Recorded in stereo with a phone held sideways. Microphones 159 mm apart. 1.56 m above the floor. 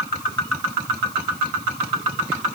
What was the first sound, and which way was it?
Only background noise.